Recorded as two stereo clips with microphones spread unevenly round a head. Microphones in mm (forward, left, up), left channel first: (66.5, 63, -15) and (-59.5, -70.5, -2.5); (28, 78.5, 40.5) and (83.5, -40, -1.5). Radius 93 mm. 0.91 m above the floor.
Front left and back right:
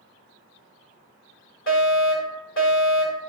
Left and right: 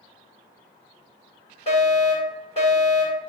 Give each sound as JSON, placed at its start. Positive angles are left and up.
{"t": 1.7, "sound": "a fire alarm", "azimuth_deg": 75, "distance_m": 6.0}